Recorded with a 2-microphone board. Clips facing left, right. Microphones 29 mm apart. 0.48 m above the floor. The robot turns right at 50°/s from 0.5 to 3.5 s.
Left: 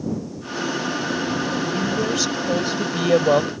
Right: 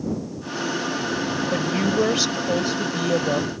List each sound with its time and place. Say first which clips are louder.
1.5 s a woman speaking: right 1 dB; 50° right; by 3.5 s 50° left